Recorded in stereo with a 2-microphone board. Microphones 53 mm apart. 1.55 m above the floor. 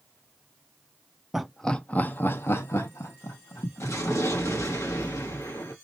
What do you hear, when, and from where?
1.3 s laughter: 5° right (ahead or behind), 0.7 m; by 4.7 s 75° left (ahead or behind), 2.5 m
3.8 s an explosion: 70° left (ahead or behind), 1.8 m